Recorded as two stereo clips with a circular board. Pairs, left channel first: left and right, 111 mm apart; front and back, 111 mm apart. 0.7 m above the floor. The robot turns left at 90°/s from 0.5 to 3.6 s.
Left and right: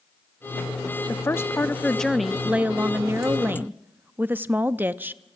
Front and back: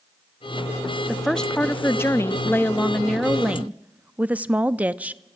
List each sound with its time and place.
1.1 s a woman speaking: 100° left, 0.5 m; by 5.2 s 130° right, 0.5 m